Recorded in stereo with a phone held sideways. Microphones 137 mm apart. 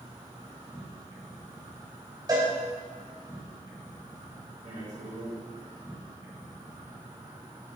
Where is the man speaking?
55° right (ahead or behind), 2.5 m.